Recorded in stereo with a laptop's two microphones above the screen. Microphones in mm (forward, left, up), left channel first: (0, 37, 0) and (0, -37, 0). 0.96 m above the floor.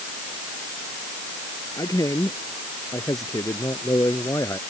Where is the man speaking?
50° left (ahead or behind); by 4.6 s 45° left (ahead or behind).